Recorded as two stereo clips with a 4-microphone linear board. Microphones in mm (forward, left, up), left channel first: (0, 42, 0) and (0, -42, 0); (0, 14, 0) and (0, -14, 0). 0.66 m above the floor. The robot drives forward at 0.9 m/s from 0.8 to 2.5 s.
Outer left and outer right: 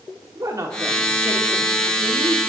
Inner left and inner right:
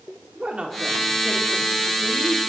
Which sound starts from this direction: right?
A woman speaking, at 0.3 s.